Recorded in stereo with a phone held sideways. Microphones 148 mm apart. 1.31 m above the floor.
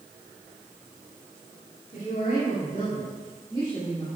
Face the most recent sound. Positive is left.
turn(degrees=30)  # may be behind; listen again after turning